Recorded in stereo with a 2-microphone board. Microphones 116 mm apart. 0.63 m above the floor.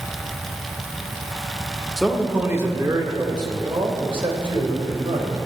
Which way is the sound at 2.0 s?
Centre (ahead or behind).